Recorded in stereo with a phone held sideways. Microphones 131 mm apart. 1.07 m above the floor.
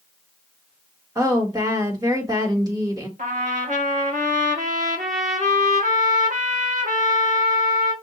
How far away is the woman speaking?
About 1.7 m.